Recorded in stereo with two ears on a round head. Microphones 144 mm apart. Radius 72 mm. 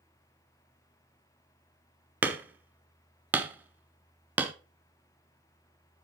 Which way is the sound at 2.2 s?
10° right (ahead or behind).